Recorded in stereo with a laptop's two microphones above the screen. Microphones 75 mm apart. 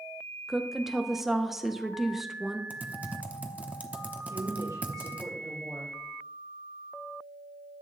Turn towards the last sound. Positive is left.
turn(degrees=-65)  # may be behind; listen again after turning